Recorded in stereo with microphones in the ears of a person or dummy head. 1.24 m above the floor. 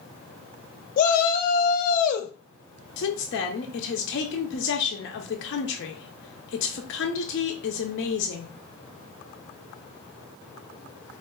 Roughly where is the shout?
Left.